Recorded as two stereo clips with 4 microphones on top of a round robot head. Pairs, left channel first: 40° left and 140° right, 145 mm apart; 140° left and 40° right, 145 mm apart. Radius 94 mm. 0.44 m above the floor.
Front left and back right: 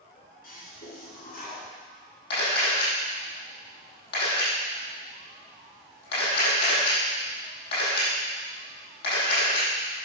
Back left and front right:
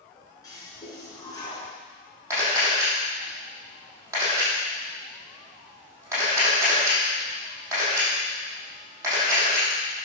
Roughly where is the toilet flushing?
Left.